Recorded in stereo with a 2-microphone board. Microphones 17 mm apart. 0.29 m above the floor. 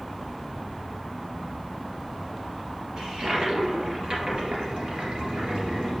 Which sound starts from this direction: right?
A toilet flushing, at 3.0 s.